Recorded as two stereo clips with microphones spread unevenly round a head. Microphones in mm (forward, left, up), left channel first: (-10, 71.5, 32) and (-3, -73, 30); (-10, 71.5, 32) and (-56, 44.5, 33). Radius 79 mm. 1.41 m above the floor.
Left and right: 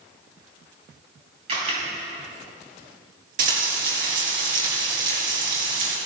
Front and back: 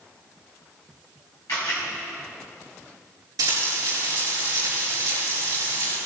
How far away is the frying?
About 4.5 m.